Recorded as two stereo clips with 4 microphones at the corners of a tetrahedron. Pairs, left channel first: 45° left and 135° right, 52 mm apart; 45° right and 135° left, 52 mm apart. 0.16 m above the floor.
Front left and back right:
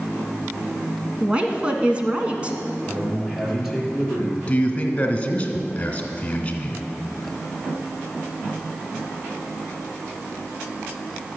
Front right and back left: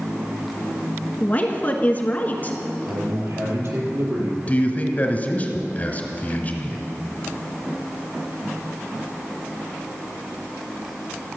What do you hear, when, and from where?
1.2 s a woman speaking: 80° right, 1.3 m
2.9 s a man speaking: 145° left, 4 m
4.5 s a man speaking: 5° right, 1.5 m